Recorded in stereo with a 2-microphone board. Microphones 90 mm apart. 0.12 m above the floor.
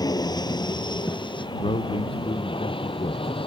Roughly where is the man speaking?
Left.